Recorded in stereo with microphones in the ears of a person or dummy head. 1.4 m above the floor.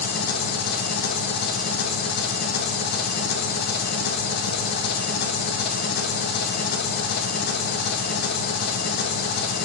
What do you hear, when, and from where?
0.0 s an engine running: 60° left (ahead or behind), 1.3 m